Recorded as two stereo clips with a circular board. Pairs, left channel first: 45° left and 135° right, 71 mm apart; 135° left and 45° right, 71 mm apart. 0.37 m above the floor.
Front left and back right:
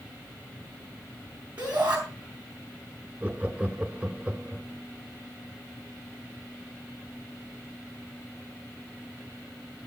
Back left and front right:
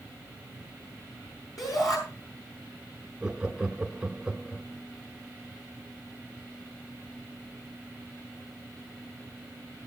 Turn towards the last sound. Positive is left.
turn(degrees=-105)